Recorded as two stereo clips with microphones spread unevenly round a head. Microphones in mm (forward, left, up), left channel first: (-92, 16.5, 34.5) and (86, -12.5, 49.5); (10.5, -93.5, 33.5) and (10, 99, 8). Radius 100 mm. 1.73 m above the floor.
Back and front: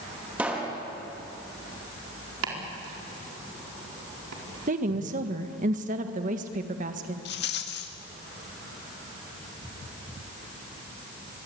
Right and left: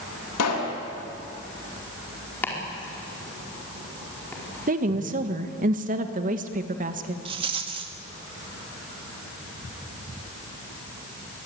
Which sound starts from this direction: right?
A pop, at 0.4 s.